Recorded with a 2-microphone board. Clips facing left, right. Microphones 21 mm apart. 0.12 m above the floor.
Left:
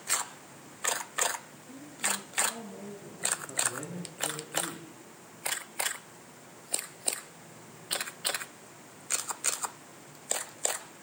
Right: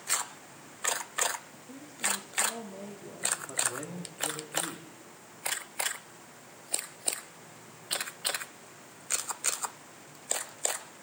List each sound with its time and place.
1.5 s a woman speaking: 40° right (ahead or behind), 4.5 m
3.5 s a man speaking: 20° right (ahead or behind), 5.5 m